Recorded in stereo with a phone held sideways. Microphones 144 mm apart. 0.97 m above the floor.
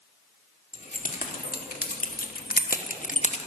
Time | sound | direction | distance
0.7 | keys jangling | 65° left (ahead or behind) | 2 m